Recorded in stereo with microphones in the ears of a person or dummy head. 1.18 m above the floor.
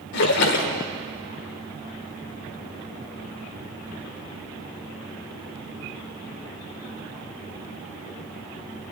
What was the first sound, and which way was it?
A splash, 60° left (ahead or behind).